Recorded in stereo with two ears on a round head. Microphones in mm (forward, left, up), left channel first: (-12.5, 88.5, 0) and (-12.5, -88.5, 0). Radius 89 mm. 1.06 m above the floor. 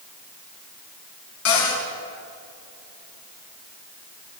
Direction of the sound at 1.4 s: 85° left.